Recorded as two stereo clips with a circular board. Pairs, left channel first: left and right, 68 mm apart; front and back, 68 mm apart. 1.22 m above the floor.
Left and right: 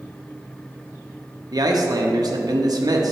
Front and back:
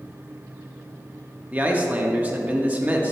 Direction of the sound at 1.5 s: 110° right.